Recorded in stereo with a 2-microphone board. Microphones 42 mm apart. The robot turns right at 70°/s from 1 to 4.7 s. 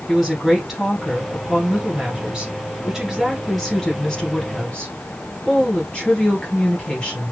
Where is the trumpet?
I don't hear a trumpet.